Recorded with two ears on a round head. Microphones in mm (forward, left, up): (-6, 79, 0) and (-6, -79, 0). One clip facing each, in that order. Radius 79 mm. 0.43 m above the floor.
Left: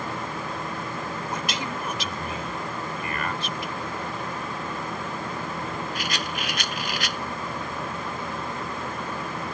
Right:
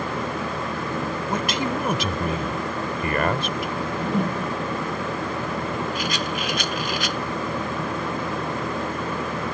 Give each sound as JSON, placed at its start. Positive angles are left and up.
{"t": 1.3, "sound": "a man speaking", "side_deg": -45}
{"t": 3.8, "sound": "a whoosh", "side_deg": -45}
{"t": 6.0, "sound": "a rattle", "side_deg": -80}